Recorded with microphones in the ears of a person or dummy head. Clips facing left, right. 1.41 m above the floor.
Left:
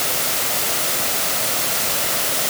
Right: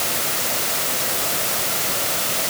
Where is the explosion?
No explosion in this recording.